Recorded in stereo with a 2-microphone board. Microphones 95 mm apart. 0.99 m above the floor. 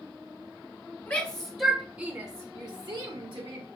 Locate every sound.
1.1 s a shout: 25° left (ahead or behind), 0.7 m; by 3.6 s 65° right (ahead or behind), 1.0 m